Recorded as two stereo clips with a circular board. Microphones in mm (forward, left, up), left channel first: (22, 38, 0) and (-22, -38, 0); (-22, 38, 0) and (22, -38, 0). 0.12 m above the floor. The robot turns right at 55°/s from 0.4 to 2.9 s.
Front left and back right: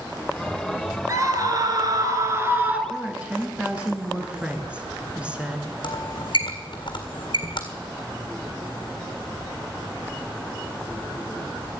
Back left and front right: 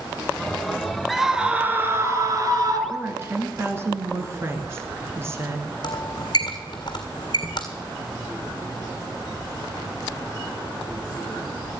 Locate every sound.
1.1 s a scream: 150° right, 1.8 m; by 2.8 s 55° right, 1.8 m
2.9 s a woman speaking: 55° right, 1.6 m
5.8 s a squeak: 85° left, 1.7 m